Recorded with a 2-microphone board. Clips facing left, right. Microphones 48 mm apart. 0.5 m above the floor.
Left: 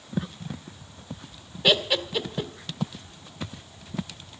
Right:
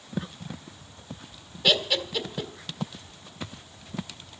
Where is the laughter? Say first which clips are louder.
Left 2 dB; 15° left (ahead or behind), 1.9 m.